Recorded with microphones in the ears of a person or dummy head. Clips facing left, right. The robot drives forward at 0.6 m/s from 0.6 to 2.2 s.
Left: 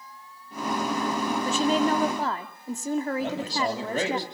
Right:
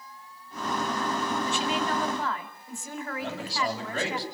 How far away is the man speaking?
About 9.5 m.